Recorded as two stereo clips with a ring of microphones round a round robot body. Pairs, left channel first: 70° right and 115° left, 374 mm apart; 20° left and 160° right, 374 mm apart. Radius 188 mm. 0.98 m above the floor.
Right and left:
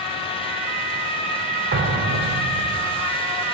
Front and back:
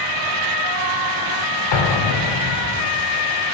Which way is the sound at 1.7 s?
50° left.